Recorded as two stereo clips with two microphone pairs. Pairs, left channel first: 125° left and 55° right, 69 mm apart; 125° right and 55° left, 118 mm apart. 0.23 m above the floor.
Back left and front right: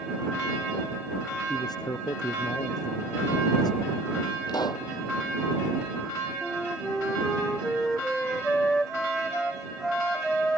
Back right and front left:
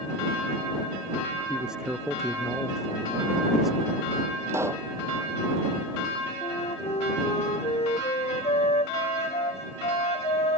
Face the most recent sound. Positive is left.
turn(degrees=-155)